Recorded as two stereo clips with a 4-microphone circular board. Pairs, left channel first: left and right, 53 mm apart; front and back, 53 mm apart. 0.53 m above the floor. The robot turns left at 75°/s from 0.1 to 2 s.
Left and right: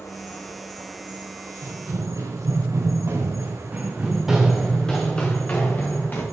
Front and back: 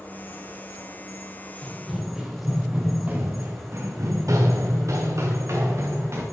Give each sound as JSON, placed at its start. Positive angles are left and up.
{"t": 0.0, "sound": "an insect", "azimuth_deg": 55, "distance_m": 2.5}
{"t": 1.6, "sound": "running footsteps", "azimuth_deg": -65, "distance_m": 4.0}